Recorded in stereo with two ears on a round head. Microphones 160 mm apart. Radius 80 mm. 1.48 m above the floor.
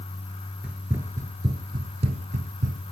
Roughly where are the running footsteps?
Centre.